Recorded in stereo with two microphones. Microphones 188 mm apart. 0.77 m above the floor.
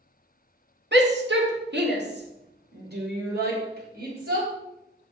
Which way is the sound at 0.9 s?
70° right (ahead or behind).